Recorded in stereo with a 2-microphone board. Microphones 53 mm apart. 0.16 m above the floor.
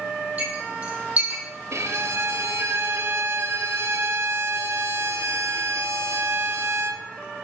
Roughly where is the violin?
Right.